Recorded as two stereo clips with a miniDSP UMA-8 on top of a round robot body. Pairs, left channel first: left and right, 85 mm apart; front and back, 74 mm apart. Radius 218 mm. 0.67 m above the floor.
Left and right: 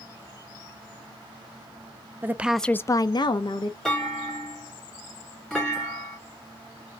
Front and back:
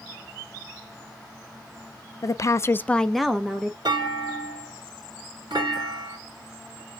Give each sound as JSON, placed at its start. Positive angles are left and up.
{"t": 2.2, "sound": "a woman speaking", "azimuth_deg": -30, "distance_m": 0.6}
{"t": 3.9, "sound": "a clunk", "azimuth_deg": 175, "distance_m": 2.0}